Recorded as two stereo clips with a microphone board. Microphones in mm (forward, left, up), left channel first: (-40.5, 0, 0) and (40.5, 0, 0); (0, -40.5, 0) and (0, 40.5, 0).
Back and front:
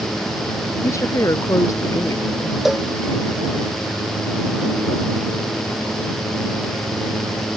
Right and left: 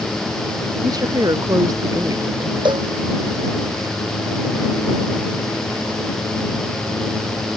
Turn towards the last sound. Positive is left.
turn(degrees=85)